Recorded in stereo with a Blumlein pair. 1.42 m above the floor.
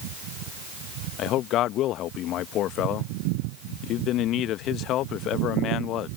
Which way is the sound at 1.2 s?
35° left.